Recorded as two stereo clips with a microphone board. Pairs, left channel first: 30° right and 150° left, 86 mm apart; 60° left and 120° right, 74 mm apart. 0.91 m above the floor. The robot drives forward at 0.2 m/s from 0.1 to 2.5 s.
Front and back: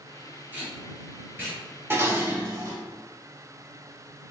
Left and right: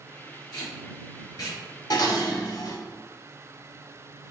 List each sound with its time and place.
0.5 s tape being pulled: 80° left, 1.9 m; by 1.6 s 85° left, 1.9 m
1.9 s dishes clattering: 85° left, 0.8 m; by 2.8 s 95° left, 0.8 m